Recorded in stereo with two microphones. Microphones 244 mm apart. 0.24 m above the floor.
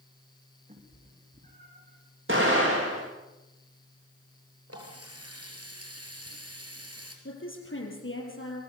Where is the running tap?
75° right (ahead or behind), 3.5 m.